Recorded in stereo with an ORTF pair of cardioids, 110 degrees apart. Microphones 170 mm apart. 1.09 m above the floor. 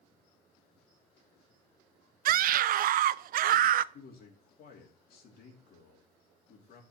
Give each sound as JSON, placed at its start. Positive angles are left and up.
{"t": 2.2, "sound": "a scream", "azimuth_deg": -60, "distance_m": 0.6}
{"t": 3.9, "sound": "a man speaking", "azimuth_deg": 65, "distance_m": 2.5}